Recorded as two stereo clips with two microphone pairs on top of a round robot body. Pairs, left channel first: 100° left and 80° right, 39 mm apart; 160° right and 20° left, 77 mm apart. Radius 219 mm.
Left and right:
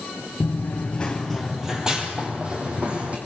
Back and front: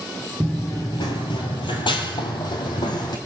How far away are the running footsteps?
About 1.0 m.